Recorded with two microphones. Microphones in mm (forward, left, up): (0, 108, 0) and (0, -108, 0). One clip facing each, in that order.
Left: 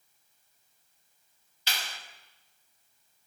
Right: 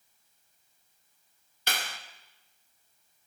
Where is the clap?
55° right (ahead or behind), 0.8 m.